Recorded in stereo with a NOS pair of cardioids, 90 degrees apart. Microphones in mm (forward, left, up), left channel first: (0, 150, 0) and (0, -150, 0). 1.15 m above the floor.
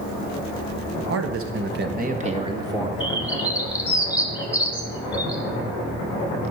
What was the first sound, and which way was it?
A man speaking, 60° right.